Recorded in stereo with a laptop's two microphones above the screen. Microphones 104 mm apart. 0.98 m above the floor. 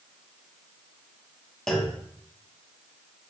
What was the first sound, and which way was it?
A clunk, 5° left (ahead or behind).